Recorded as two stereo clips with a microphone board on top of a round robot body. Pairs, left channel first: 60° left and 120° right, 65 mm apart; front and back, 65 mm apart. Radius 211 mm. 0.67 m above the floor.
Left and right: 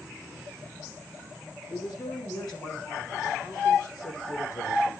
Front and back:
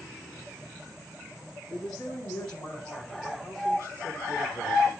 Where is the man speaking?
85° left, 6 m; by 4.9 s 55° left, 4.5 m.